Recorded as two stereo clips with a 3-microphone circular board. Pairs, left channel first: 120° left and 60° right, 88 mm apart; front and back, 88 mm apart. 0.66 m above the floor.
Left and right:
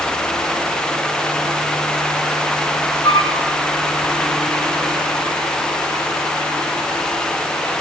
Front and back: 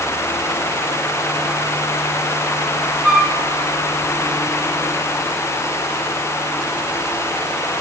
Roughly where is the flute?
Left.